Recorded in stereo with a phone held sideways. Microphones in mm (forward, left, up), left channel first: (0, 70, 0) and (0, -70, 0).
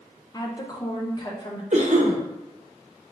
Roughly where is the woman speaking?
Left.